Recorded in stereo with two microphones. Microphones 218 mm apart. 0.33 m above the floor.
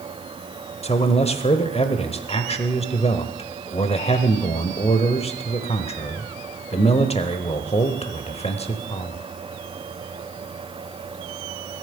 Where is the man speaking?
30° left (ahead or behind), 1.0 m.